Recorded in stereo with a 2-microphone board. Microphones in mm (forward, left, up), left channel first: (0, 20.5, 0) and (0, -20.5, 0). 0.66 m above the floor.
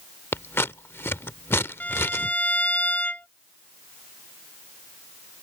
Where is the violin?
40° left (ahead or behind).